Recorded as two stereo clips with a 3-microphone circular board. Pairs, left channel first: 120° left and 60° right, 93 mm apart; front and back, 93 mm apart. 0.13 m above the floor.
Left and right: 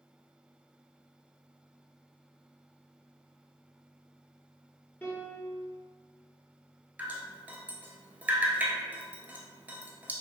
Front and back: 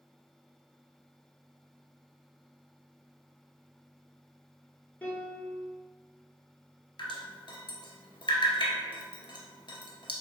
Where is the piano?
65° left, 1.1 m.